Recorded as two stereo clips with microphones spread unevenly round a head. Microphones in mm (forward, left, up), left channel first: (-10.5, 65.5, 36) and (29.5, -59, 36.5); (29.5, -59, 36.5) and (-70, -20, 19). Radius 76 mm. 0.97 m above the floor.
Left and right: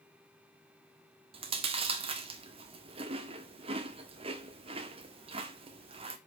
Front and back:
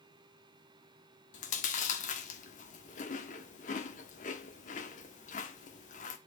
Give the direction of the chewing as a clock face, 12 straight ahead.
1 o'clock.